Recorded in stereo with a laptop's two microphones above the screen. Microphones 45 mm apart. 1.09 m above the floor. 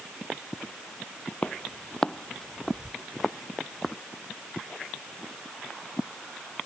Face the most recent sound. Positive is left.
turn(degrees=0)  # may be behind; listen again after turning